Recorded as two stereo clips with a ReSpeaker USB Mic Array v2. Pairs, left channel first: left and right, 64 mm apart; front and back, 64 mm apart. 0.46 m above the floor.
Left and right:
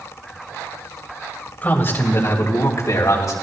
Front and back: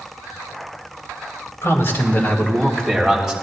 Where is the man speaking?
35° left, 2.5 m; by 3.3 s 90° left, 3 m.